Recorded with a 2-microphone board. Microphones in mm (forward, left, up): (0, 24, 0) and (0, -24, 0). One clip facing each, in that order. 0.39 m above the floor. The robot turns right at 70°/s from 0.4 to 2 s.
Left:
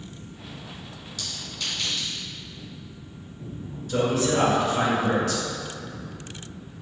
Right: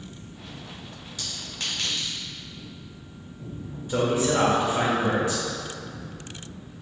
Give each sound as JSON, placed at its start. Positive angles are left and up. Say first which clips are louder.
{"t": 1.2, "sound": "a clink", "louder": "even", "side_deg": -20, "distance_m": 1.5}
{"t": 3.9, "sound": "a man speaking", "louder": "even", "side_deg": -20, "distance_m": 0.8}